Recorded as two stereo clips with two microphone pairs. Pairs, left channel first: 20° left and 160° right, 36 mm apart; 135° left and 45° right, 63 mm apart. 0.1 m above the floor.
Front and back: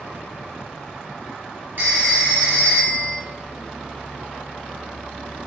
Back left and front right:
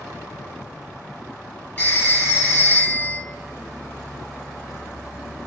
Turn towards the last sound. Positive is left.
turn(degrees=-170)